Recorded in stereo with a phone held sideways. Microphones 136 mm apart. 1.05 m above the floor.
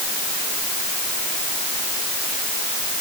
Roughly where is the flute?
No flute in this recording.